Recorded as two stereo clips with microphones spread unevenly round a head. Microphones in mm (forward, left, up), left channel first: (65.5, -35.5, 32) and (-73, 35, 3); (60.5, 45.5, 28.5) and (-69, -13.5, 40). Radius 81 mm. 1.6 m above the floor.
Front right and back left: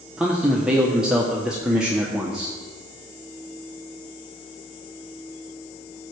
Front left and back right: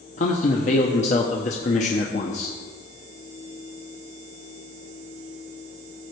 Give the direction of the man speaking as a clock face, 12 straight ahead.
10 o'clock.